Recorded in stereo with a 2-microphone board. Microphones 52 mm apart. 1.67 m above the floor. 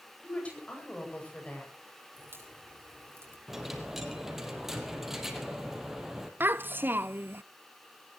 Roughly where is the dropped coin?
Centre.